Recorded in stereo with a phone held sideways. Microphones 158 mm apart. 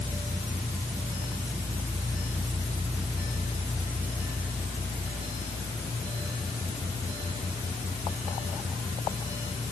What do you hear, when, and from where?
Only background noise.